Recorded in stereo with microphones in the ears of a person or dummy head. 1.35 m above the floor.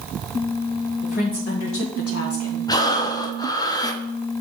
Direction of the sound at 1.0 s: 45° left (ahead or behind).